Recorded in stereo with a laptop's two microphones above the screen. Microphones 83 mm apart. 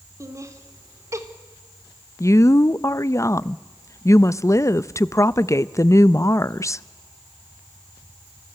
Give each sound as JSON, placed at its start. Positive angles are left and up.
{"t": 0.2, "sound": "laughter", "side_deg": -40, "distance_m": 3.0}
{"t": 2.2, "sound": "a woman speaking", "side_deg": 35, "distance_m": 0.6}